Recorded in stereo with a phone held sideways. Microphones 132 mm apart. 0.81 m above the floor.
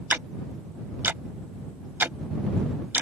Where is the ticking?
15° right (ahead or behind).